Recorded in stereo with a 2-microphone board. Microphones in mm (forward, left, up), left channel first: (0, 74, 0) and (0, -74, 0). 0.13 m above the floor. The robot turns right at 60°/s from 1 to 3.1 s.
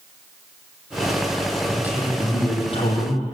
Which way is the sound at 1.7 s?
20° right.